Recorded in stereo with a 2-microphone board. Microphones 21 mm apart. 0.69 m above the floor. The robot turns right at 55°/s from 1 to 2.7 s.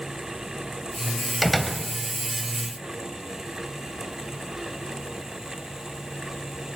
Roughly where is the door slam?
Centre.